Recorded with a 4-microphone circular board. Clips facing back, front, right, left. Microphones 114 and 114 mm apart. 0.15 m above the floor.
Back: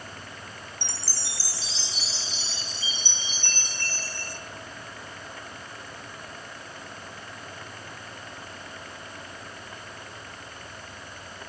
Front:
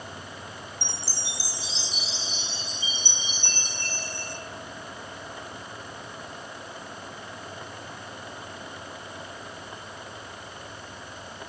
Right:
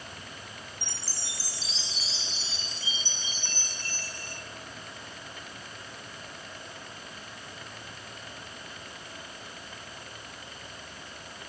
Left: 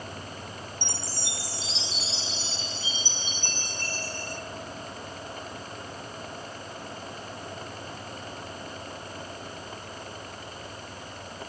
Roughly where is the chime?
Left.